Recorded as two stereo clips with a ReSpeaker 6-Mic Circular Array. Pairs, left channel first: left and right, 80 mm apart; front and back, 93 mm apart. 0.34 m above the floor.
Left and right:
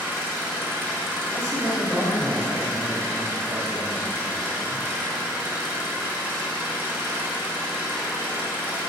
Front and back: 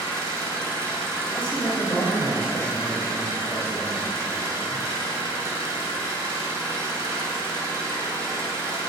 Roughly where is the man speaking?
Ahead right.